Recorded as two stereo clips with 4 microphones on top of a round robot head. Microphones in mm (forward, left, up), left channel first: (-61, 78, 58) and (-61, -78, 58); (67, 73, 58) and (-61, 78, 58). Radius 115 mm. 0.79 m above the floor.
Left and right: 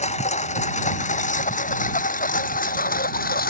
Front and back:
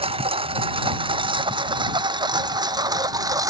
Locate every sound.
0.0 s a lawn mower: 135° left; by 3.5 s 115° left